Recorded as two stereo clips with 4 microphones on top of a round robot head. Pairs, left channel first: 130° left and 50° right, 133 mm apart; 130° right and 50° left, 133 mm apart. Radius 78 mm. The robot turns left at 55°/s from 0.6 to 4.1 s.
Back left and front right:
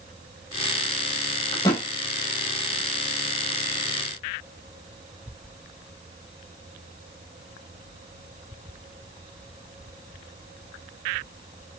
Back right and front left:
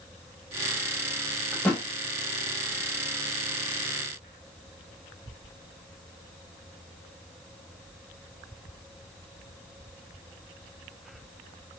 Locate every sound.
1.5 s a thud: 165° left, 0.6 m; by 1.8 s 150° left, 0.6 m